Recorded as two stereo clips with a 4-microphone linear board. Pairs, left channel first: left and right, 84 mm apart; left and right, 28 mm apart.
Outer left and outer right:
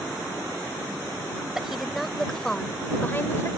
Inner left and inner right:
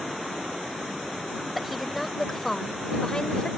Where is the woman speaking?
5° right (ahead or behind); by 3.5 s 35° left (ahead or behind).